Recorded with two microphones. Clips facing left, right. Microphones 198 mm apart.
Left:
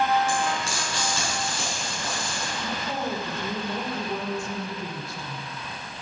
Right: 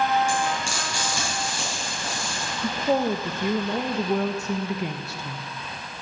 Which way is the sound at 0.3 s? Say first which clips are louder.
Right 1 dB; 15° right (ahead or behind).